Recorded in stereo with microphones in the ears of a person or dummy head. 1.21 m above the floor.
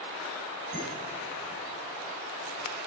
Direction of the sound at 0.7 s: 40° right (ahead or behind).